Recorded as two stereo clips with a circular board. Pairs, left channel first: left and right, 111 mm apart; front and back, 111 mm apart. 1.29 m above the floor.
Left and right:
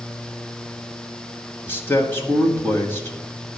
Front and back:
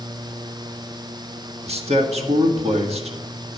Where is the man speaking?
160° left, 1.5 m.